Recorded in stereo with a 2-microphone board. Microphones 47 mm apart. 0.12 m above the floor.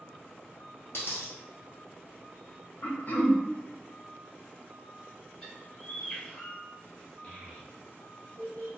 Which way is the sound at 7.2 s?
40° left (ahead or behind).